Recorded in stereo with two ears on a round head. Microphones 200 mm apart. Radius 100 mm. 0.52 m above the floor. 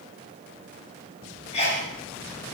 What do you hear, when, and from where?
1.5 s a sneeze: 30° left (ahead or behind), 3 m